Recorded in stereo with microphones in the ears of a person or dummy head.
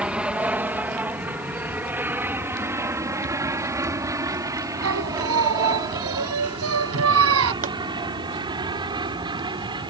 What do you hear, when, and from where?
0.0 s an aircraft: 5° right (ahead or behind); by 9.9 s 20° right (ahead or behind)
4.8 s singing: 85° right
7.6 s a pop: 35° right (ahead or behind)